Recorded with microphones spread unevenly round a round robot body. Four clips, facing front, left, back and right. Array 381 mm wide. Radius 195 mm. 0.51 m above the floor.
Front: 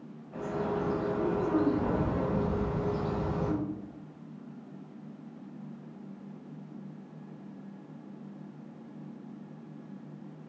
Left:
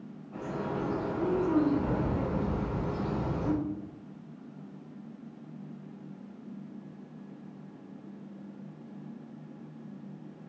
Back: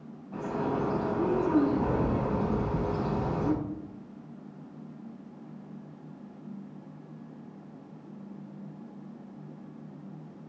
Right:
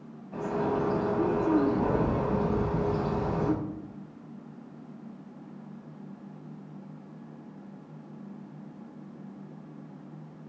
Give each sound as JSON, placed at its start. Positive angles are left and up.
{"t": 0.3, "sound": "a bird", "azimuth_deg": -145, "distance_m": 5.0}